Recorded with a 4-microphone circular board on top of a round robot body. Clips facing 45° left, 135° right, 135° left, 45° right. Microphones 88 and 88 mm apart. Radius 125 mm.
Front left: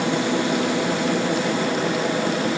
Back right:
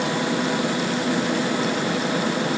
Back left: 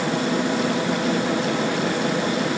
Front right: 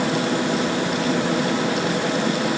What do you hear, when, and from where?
Only background noise.